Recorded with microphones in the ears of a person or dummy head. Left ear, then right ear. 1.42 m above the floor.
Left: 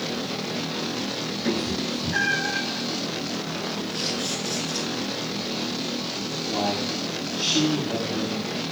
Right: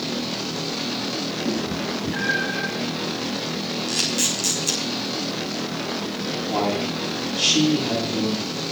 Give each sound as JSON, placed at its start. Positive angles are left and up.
{"t": 1.4, "sound": "a cat meowing", "side_deg": 80, "distance_m": 8.0}
{"t": 3.9, "sound": "a camera shutter", "side_deg": -60, "distance_m": 6.0}
{"t": 6.5, "sound": "a man speaking", "side_deg": -30, "distance_m": 8.5}